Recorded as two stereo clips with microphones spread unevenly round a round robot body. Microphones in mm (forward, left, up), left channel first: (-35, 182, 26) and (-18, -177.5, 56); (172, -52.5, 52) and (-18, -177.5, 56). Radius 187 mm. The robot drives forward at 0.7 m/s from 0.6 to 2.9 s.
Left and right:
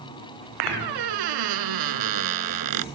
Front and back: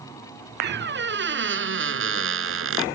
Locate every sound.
0.6 s a squeak: 105° right; by 2.8 s 120° right